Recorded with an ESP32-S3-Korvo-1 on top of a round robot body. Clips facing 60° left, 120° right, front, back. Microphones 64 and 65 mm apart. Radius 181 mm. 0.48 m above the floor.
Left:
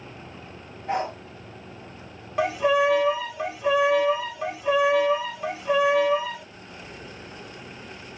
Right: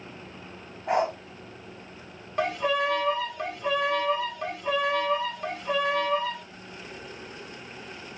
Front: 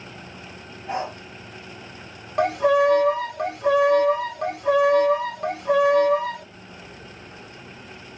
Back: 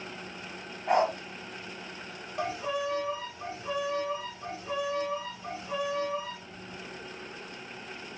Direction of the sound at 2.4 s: 25° right.